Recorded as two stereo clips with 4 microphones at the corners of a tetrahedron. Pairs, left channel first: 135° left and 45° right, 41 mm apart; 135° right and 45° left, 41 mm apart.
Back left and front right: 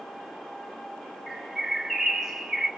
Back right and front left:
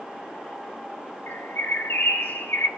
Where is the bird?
135° right, 4 m.